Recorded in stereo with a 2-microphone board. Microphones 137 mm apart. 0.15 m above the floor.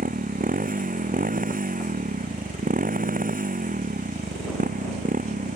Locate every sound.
0.0 s a motorcycle: 75° right (ahead or behind)